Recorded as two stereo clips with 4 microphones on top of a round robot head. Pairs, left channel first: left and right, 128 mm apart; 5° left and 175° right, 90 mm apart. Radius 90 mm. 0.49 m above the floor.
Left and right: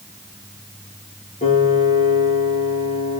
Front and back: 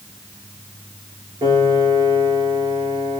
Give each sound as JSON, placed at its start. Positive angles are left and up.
{"t": 1.4, "sound": "a piano", "azimuth_deg": 140, "distance_m": 6.0}